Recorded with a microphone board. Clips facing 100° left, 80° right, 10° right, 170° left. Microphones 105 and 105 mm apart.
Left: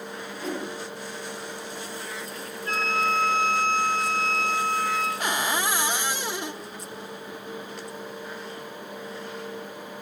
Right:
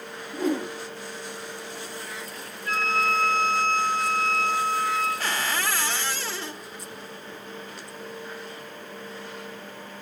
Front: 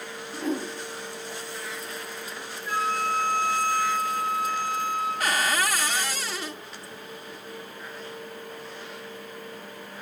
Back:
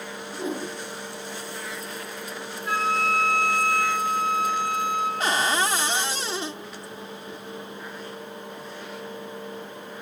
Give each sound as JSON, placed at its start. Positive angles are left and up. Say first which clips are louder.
{"t": 0.3, "sound": "a whoosh", "louder": "right 7 dB, front 1 dB", "azimuth_deg": -120, "distance_m": 9.5}
{"t": 2.6, "sound": "a flute", "louder": "right 1 dB, back 2 dB", "azimuth_deg": 160, "distance_m": 7.5}
{"t": 5.2, "sound": "a cupboard door", "louder": "left 2 dB, back 2 dB", "azimuth_deg": 145, "distance_m": 0.6}